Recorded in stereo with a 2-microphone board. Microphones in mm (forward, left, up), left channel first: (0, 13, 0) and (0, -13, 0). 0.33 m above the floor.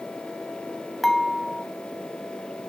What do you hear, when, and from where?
1.0 s dishes clattering: 5° left (ahead or behind), 1.5 m